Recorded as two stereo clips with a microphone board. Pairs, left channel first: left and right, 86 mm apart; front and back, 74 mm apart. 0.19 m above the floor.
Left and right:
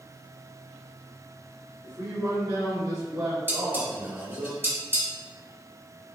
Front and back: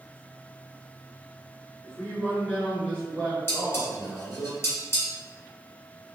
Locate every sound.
1.8 s a man speaking: 65° right, 1.8 m; by 4.5 s 75° right, 3 m
3.5 s dishes clattering: 35° right, 1.3 m